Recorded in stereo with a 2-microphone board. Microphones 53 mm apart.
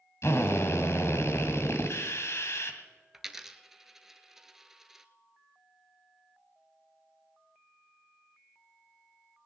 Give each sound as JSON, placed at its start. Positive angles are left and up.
{"t": 0.2, "sound": "a drill", "side_deg": 65, "distance_m": 1.7}
{"t": 3.1, "sound": "a dropped coin", "side_deg": -10, "distance_m": 0.8}